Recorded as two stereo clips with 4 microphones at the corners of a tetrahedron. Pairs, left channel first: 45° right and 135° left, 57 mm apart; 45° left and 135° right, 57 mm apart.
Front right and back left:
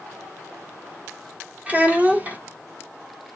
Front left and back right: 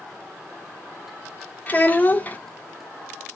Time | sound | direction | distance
1.7 | a child speaking | 85° left | 0.9 m